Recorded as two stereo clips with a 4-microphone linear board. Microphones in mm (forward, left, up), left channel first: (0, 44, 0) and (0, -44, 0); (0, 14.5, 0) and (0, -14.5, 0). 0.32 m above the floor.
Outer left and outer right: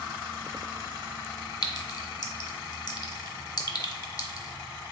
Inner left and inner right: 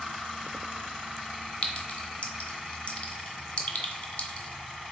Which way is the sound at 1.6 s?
45° left (ahead or behind).